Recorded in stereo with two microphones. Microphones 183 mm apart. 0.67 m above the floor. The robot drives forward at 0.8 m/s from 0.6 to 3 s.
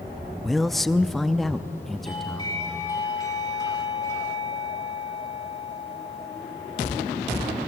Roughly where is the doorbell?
Left.